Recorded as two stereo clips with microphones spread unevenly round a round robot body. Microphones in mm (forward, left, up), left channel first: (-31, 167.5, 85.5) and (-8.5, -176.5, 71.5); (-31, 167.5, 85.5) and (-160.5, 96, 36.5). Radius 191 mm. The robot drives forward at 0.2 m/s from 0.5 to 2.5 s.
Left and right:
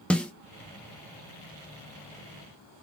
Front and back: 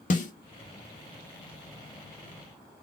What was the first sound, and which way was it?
A snare drum, 5° left.